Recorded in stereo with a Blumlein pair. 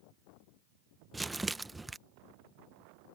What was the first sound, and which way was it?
Crumpling, 10° right.